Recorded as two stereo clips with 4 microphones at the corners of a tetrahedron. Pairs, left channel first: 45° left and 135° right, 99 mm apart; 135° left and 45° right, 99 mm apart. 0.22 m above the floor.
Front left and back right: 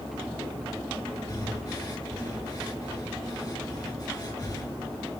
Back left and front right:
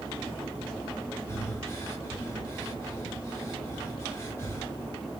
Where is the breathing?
85° left, 1.8 m.